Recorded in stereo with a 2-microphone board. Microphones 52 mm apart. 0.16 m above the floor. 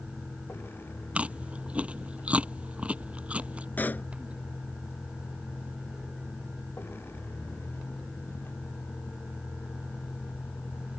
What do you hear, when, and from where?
0.0 s a vehicle: 50° left (ahead or behind)
1.1 s chewing: 25° right (ahead or behind)
3.8 s a pop: 35° left (ahead or behind)